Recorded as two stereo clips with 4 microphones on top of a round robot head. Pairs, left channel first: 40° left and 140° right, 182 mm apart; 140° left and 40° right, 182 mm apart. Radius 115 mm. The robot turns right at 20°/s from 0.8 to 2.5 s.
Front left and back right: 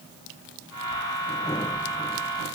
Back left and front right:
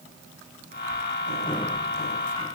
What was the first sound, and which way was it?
Only background noise.